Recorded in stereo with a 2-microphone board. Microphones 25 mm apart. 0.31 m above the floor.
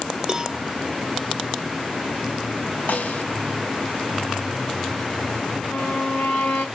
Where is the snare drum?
70° left (ahead or behind), 1.0 m.